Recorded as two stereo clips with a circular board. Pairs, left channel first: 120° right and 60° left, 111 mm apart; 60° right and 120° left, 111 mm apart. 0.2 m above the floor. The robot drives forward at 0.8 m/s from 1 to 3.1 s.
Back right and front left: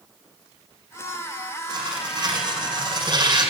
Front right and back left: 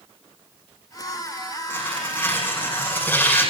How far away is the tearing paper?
About 8.5 m.